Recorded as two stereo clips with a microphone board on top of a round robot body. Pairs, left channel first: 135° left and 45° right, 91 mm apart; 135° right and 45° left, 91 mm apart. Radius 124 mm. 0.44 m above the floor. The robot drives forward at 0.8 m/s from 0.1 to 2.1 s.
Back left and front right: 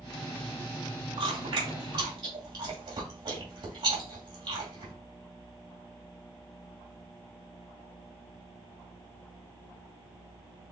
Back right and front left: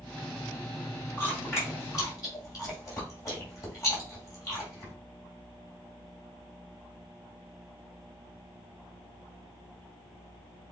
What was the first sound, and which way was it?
Chewing, 70° right.